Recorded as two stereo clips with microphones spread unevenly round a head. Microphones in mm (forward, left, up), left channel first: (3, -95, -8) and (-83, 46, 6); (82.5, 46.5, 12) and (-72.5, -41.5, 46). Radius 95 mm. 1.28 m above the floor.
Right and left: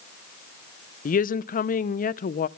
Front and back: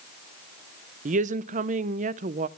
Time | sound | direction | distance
1.1 | a woman speaking | 100° right | 0.6 m